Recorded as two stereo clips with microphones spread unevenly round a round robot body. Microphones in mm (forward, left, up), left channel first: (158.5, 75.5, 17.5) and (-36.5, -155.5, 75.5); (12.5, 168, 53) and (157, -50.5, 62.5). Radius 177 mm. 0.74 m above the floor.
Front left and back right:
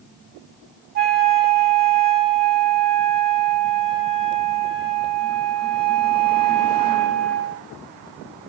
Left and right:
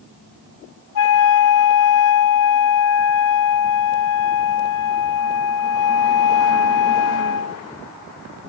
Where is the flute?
175° left, 1.1 m.